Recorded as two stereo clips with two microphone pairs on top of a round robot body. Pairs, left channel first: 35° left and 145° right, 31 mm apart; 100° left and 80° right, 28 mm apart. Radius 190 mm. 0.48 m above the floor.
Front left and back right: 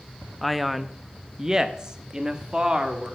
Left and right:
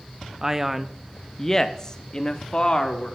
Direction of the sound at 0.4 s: 25° right.